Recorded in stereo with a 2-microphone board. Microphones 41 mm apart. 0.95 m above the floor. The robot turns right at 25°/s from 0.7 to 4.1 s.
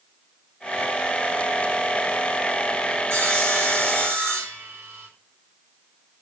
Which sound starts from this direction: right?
Sawing, at 3.1 s.